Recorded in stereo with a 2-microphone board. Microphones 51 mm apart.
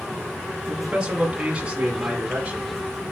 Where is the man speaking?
15° right (ahead or behind), 1.6 m; by 2.8 s 20° right (ahead or behind), 2.5 m.